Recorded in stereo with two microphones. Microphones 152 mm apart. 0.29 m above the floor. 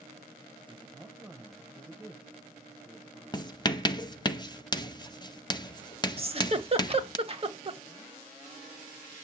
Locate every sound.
0.7 s a woman speaking: 15° right (ahead or behind), 1.0 m
3.3 s writing: 30° left (ahead or behind), 0.6 m
6.2 s a giggle: 40° right (ahead or behind), 0.8 m